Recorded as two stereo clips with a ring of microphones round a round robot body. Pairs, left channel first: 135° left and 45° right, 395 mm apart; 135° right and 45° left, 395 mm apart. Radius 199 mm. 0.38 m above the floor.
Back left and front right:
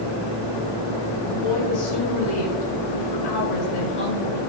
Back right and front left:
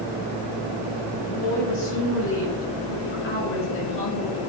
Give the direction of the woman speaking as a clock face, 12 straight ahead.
6 o'clock.